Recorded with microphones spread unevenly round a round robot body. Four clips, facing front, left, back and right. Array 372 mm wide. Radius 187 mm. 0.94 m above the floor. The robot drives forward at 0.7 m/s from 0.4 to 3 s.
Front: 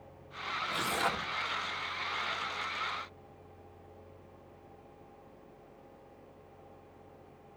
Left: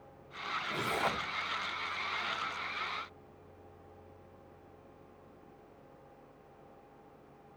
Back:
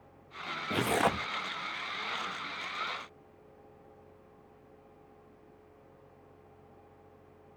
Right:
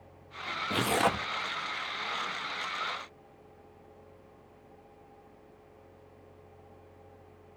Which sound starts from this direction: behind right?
Tearing paper, at 0.7 s.